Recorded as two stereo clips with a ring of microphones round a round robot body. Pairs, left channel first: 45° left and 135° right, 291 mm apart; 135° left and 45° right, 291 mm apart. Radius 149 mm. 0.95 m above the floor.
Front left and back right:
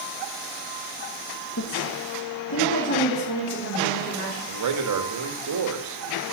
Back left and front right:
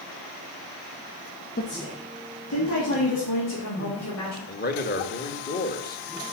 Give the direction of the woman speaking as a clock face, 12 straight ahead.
9 o'clock.